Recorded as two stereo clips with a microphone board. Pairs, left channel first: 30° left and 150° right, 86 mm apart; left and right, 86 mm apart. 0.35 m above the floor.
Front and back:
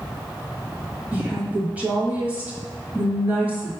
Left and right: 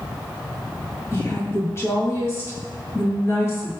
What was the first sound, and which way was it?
A woman speaking, 140° left.